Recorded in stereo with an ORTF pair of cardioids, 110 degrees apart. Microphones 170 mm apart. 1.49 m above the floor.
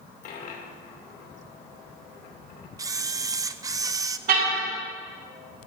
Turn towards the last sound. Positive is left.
turn(degrees=-60)